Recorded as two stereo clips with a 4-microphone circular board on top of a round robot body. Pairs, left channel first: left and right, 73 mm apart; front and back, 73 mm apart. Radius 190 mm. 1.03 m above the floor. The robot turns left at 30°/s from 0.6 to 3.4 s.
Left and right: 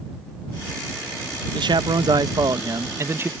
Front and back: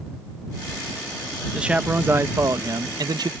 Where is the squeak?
I don't hear a squeak.